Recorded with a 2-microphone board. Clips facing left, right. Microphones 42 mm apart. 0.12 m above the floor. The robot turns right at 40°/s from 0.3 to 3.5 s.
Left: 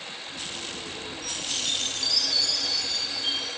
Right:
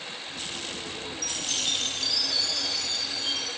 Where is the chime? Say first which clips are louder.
Right 1 dB; 160° left, 2.5 m; by 3.5 s 110° right, 2.5 m.